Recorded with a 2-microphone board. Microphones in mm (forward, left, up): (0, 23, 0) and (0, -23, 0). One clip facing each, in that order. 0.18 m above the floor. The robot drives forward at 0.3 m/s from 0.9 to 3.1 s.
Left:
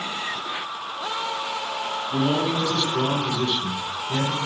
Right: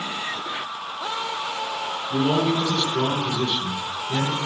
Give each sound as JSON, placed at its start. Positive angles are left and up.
{"t": 2.1, "sound": "a man speaking", "side_deg": -15, "distance_m": 1.6}